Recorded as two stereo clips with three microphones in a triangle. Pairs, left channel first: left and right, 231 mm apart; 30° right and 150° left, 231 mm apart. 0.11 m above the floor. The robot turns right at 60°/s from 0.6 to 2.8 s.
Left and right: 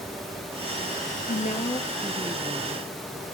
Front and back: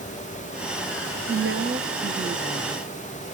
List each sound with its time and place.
1.3 s a woman speaking: 125° left, 2.5 m; by 2.9 s 145° right, 2.5 m